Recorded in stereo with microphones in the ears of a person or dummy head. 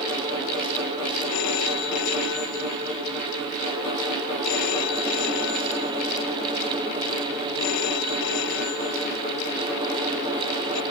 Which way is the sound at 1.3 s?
65° left (ahead or behind).